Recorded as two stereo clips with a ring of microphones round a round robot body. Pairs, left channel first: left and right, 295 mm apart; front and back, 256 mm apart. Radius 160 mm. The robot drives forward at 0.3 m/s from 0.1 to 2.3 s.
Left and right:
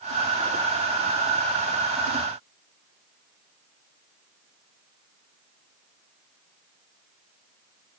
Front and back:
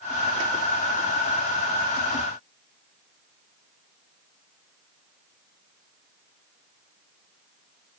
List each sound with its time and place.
Only background noise.